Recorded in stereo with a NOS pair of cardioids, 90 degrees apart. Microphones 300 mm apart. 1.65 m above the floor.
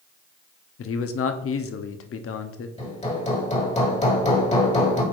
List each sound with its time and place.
0.8 s a man speaking: 45° left, 0.9 m
2.8 s hammering: 25° left, 2 m